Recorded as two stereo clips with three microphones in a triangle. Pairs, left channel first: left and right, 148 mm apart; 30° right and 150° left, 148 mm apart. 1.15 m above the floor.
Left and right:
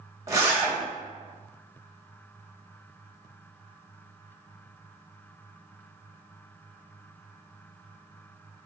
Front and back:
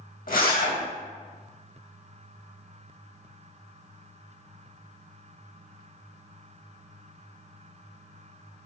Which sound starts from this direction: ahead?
A zipper, at 0.3 s.